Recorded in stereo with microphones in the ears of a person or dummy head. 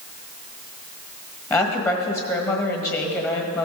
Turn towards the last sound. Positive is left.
turn(degrees=15)  # may be behind; listen again after turning